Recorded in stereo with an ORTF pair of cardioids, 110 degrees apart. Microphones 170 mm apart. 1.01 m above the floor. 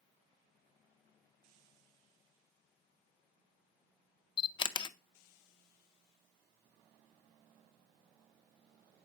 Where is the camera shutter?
30° left, 0.6 m.